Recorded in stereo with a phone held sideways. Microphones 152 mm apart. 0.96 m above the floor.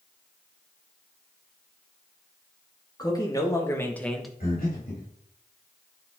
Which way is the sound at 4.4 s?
85° left.